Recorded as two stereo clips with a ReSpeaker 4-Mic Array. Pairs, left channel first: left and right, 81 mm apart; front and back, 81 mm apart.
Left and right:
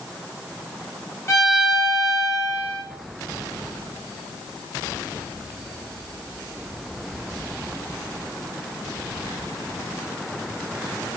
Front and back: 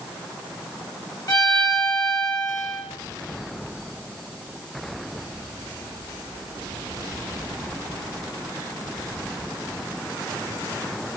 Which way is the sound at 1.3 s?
35° left.